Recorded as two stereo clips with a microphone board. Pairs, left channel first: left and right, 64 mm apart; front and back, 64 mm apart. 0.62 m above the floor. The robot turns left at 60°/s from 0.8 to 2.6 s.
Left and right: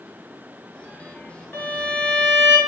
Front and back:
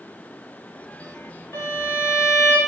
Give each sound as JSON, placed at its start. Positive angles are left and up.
{"t": 1.5, "sound": "a violin", "azimuth_deg": 40, "distance_m": 0.7}